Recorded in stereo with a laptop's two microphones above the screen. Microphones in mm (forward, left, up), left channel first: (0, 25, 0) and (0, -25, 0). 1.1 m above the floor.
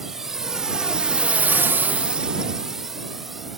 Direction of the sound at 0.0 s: 5° right (ahead or behind).